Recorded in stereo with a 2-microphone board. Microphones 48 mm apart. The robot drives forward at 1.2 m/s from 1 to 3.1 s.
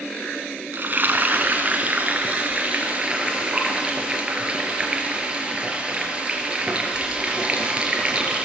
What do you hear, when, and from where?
0.7 s frying: 40° right (ahead or behind), 2.5 m; by 8.5 s 20° right (ahead or behind), 5 m